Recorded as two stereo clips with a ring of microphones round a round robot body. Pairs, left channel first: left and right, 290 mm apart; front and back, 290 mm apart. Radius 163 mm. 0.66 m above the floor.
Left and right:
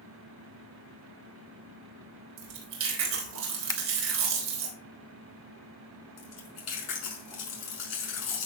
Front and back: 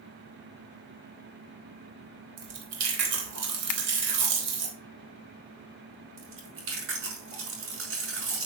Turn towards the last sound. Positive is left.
turn(degrees=135)